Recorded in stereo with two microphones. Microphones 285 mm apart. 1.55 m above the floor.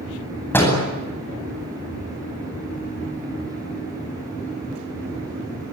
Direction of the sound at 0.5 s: 5° left (ahead or behind).